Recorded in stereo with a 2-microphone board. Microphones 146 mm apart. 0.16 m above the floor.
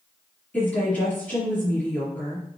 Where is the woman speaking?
10° left (ahead or behind), 3.5 m.